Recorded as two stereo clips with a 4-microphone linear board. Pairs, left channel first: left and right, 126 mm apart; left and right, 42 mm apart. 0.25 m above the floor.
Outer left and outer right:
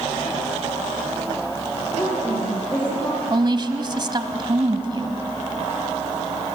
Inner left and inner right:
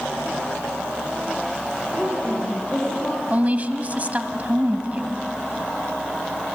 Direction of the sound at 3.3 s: 35° right (ahead or behind).